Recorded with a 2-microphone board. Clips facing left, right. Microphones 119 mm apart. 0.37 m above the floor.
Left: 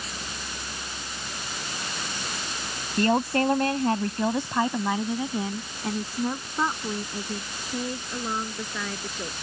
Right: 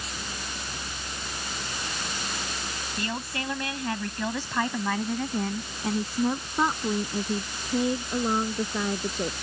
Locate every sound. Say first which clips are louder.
3.0 s a woman speaking: left 12 dB; 55° left (ahead or behind); by 9.3 s 25° right (ahead or behind)